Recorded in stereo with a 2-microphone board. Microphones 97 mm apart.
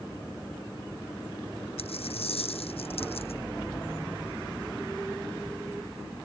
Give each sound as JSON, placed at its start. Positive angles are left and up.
{"t": 1.8, "sound": "a dropped coin", "side_deg": 85}